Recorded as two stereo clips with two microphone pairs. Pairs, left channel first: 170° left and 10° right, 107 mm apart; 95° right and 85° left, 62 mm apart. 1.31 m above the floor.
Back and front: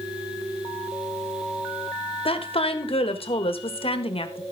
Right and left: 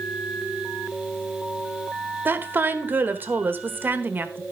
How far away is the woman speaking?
About 1.3 m.